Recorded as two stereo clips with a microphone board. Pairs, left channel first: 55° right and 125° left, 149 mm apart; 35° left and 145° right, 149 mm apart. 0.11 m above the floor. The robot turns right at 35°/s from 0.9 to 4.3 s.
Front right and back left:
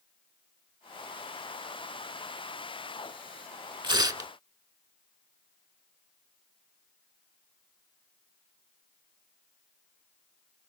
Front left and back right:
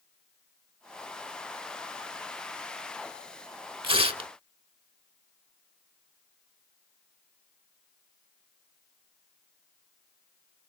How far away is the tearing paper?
About 0.5 m.